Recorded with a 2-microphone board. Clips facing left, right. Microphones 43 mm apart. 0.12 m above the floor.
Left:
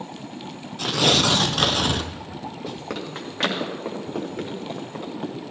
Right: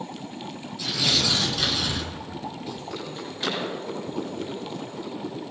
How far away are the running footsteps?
About 4 m.